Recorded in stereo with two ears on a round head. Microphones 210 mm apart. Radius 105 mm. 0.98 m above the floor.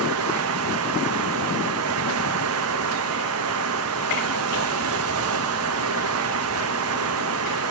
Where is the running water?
65° right (ahead or behind), 0.8 m.